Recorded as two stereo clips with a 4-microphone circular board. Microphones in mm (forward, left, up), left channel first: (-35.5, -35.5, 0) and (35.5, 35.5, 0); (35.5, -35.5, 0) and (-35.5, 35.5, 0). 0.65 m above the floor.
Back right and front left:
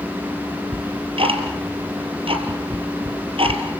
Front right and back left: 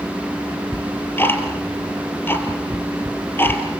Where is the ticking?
25° left, 2.5 m.